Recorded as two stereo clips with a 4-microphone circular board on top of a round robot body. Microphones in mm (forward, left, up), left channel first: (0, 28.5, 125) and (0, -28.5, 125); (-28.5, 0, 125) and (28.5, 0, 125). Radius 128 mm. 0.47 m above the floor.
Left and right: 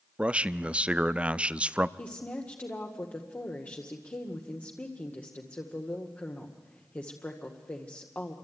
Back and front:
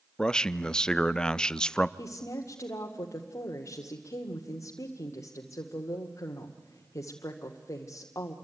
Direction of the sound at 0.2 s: 125° right.